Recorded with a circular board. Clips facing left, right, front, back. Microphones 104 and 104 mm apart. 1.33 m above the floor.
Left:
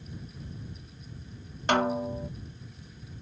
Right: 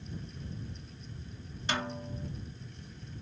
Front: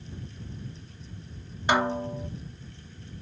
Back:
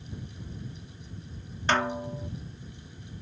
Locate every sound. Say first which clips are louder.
1.7 s a snare drum: left 10 dB, front 2 dB; 75° left